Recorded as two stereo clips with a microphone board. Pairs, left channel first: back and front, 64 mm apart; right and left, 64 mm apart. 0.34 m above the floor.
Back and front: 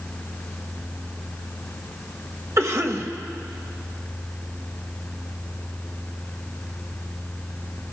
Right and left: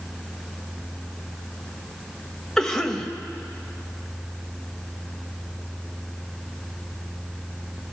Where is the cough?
10° right, 1.2 m.